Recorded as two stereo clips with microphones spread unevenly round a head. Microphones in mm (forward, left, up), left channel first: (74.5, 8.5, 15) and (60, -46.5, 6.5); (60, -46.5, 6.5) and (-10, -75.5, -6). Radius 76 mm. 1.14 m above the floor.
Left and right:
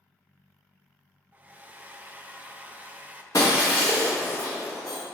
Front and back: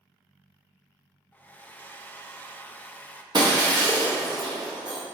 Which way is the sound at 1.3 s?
40° right.